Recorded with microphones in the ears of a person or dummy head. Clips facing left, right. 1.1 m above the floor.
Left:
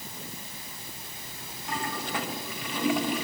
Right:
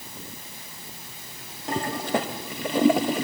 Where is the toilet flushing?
25° right (ahead or behind), 0.9 m.